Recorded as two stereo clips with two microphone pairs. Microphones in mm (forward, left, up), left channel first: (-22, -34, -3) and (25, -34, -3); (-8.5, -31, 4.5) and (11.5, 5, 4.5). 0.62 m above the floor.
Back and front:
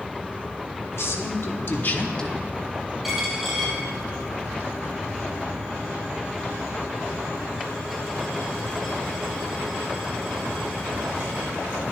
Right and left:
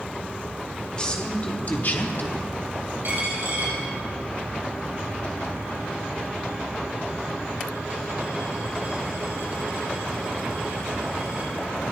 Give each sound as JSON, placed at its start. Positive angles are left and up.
{"t": 0.9, "sound": "a man speaking", "azimuth_deg": 175, "distance_m": 2.0}
{"t": 3.0, "sound": "a dropped coin", "azimuth_deg": 85, "distance_m": 4.5}